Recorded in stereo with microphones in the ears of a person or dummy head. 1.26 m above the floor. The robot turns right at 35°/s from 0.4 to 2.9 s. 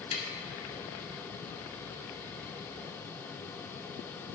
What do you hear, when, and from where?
0.1 s tapping: 35° left (ahead or behind), 4.5 m